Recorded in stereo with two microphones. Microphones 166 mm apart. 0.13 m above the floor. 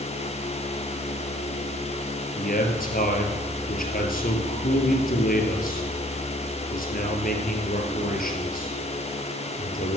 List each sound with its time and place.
2.4 s a man speaking: 60° left (ahead or behind), 3 m